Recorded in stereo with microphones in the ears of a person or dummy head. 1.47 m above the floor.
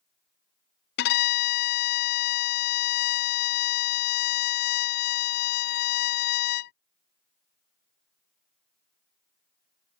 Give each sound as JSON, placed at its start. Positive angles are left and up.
{"t": 1.0, "sound": "a violin", "side_deg": 55}